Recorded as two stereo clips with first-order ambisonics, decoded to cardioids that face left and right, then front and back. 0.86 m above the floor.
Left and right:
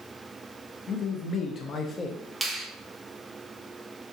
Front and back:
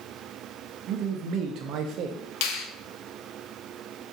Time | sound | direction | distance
0.9 | a man speaking | 150° left | 0.6 m
2.4 | a finger snap | straight ahead | 0.6 m